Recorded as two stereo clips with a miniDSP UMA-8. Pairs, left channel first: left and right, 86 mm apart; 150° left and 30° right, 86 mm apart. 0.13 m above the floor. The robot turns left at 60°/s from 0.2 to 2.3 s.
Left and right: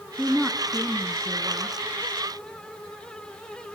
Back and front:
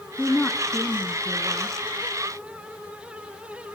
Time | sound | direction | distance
0.2 | a woman speaking | 150° right | 1.5 m